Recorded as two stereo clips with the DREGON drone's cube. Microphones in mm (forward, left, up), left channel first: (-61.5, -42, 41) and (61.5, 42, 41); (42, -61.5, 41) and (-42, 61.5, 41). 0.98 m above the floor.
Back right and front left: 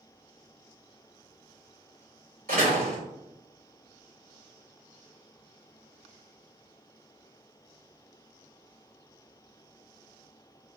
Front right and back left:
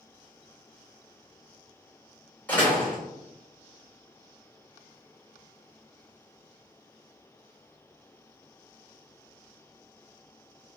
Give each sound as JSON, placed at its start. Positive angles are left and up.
{"t": 2.5, "sound": "a door slam", "azimuth_deg": 25, "distance_m": 1.9}